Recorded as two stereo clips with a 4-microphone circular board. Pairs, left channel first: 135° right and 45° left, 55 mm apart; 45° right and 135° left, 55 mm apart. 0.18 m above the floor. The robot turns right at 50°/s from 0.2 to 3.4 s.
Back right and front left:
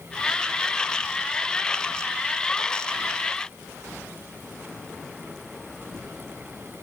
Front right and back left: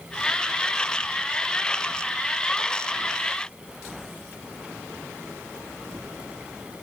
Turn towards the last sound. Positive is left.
No sound to turn to.